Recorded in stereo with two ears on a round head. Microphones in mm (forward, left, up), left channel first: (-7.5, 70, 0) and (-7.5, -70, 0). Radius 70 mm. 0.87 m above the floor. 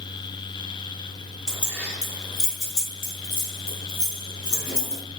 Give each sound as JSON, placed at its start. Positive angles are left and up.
{"t": 1.5, "sound": "keys jangling", "side_deg": 5, "distance_m": 1.0}